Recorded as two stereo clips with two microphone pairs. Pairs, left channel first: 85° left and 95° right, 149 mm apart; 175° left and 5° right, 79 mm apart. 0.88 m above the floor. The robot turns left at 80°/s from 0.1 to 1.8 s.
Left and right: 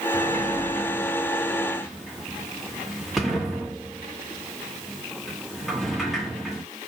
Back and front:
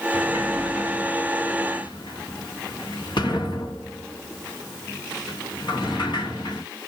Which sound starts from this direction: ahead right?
A sliding door, at 0.1 s.